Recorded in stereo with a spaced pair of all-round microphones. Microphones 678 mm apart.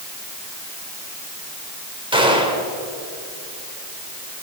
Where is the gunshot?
5° right (ahead or behind), 3 m.